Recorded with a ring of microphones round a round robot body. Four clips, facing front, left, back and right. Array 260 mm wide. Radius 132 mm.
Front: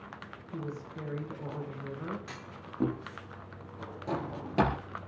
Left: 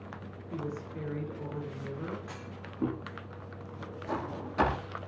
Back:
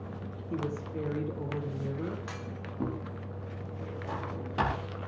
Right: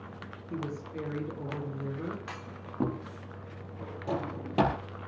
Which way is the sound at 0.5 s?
145° right.